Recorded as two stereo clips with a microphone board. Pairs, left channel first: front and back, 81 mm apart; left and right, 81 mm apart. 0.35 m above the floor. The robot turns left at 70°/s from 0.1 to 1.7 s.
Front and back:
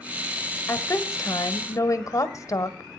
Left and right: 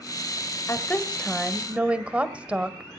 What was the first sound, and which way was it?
A woman speaking, 50° left.